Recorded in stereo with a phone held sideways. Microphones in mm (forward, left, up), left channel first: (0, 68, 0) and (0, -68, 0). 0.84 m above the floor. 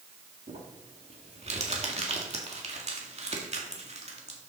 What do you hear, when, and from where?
0.5 s crumpling: 50° right (ahead or behind), 2 m